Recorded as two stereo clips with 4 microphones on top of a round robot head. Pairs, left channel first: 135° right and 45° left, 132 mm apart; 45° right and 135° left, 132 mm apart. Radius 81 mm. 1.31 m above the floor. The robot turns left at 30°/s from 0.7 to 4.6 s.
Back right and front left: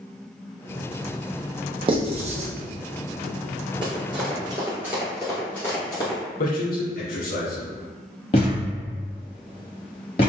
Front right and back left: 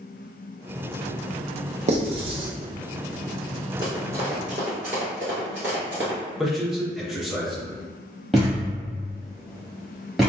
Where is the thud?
140° right, 1.2 m.